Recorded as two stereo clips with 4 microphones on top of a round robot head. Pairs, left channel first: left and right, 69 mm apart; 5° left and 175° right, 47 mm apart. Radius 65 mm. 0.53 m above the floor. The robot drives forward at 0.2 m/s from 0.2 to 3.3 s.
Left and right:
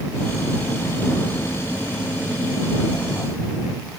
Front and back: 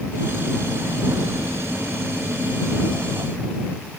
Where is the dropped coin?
No dropped coin in this recording.